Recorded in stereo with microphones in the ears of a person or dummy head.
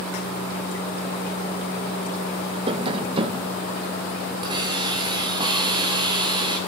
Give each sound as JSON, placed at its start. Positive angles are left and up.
{"t": 2.7, "sound": "tapping", "side_deg": -25, "distance_m": 1.3}
{"t": 4.4, "sound": "a hiss", "side_deg": -25, "distance_m": 3.0}